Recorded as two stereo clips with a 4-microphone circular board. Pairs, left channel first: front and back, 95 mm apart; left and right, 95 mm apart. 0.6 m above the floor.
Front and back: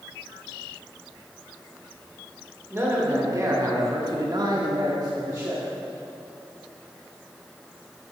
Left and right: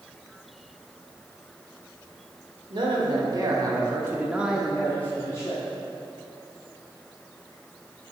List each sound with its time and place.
2.7 s a man speaking: 120° right, 1.5 m; by 5.6 s 130° left, 0.9 m